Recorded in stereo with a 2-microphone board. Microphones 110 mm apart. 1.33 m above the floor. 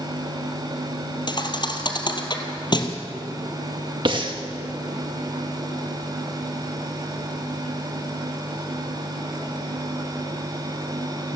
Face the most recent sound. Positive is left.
turn(degrees=-50)  # may be behind; listen again after turning